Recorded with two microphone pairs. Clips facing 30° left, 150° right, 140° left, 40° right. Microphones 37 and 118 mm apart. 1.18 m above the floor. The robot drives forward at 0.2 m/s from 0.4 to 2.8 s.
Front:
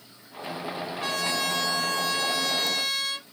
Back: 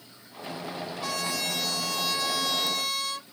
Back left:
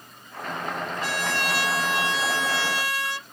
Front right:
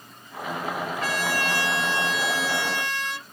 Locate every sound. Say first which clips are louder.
1.0 s a trumpet: front 3 dB, front right 1 dB; 80° left, 2 m; by 3.2 s 90° left, 2 m